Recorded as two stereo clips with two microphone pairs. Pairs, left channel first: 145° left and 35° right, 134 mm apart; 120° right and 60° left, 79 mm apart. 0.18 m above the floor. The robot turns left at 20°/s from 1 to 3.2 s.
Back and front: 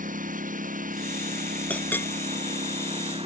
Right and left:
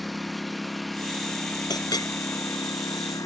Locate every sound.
0.0 s a lawn mower: 30° right; by 3.3 s 75° right
1.7 s a clink: 135° right; by 2.1 s 140° right